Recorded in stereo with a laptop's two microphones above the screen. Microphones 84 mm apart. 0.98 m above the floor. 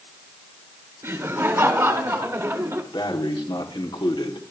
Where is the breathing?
60° left (ahead or behind), 1.5 m.